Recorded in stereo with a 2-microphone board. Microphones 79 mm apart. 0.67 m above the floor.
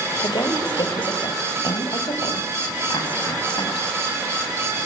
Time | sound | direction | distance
0.2 | a woman speaking | 70° left (ahead or behind) | 3.5 m